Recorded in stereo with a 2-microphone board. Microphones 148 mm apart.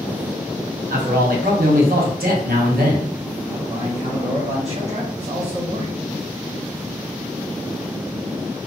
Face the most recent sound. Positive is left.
turn(degrees=-45)  # may be behind; listen again after turning